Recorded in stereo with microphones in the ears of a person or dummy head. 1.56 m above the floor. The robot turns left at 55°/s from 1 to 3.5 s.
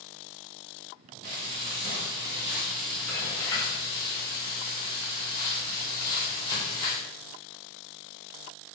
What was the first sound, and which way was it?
Frying, 100° right.